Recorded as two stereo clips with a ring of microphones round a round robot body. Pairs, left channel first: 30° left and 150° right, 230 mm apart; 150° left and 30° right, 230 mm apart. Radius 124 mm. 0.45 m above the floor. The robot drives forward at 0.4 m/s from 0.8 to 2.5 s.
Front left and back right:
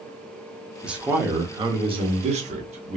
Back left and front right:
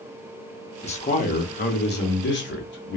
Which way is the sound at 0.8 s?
125° left.